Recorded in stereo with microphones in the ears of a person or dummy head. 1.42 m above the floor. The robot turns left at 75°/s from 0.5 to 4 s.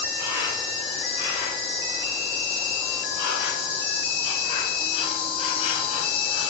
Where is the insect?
65° right, 1.8 m; by 6.5 s 35° left, 1.8 m.